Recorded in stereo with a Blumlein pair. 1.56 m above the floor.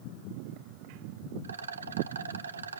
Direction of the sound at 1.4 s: 70° right.